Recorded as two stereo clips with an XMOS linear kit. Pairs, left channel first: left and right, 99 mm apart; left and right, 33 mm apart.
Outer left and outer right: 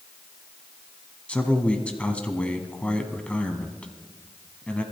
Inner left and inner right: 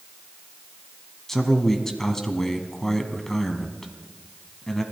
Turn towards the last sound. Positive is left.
turn(degrees=10)  # may be behind; listen again after turning